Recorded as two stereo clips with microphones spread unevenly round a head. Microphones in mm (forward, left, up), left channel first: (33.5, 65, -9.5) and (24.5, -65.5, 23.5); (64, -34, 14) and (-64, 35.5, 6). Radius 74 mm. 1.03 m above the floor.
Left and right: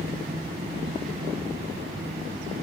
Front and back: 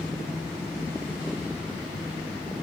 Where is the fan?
125° right, 2.5 m.